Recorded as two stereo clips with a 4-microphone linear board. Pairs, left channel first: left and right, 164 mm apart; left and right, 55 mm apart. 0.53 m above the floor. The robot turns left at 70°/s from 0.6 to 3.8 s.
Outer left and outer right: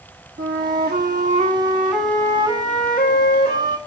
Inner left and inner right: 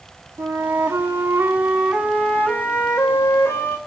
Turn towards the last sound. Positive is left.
turn(degrees=50)